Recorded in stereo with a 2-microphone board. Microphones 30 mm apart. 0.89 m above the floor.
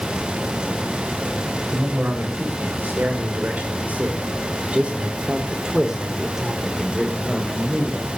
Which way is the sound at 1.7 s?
85° right.